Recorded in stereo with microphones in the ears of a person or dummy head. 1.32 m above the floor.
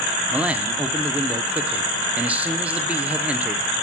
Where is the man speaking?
5° right (ahead or behind), 0.6 m.